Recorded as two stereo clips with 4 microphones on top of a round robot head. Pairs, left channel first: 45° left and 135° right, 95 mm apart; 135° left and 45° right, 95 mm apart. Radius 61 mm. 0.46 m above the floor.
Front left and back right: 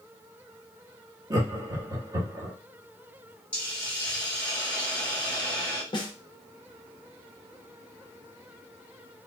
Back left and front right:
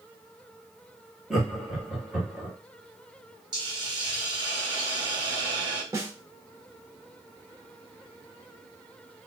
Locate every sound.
1.3 s laughter: 125° right, 1.2 m
3.5 s a hiss: 30° right, 1.5 m
5.9 s a snare drum: 10° left, 0.9 m